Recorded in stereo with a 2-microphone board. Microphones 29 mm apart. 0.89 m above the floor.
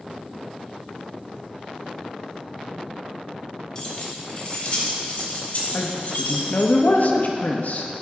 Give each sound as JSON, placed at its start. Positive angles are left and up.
{"t": 3.8, "sound": "keys jangling", "side_deg": 25, "distance_m": 2.0}
{"t": 5.7, "sound": "a woman speaking", "side_deg": 65, "distance_m": 1.0}